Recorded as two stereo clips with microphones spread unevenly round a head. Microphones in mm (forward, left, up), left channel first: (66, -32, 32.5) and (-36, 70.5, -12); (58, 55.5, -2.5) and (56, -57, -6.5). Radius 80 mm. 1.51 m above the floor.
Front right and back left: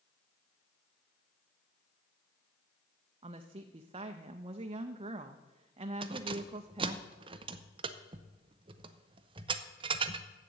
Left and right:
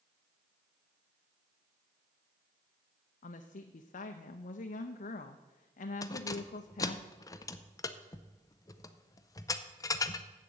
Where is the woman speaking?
85° left, 0.5 m.